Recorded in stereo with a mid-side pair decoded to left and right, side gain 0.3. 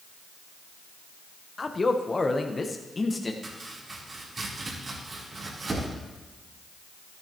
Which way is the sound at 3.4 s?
55° right.